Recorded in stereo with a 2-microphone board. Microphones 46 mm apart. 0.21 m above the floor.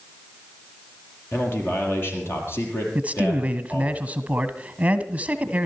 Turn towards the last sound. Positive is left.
turn(degrees=-30)  # may be behind; listen again after turning